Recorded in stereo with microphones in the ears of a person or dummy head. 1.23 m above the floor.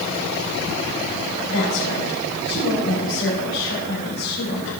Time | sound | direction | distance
1.5 | a woman speaking | 85° left | 7.5 m